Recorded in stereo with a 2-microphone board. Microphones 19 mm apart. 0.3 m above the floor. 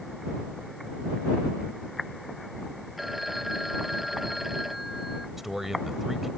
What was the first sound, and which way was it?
A phone ringing, 10° right (ahead or behind).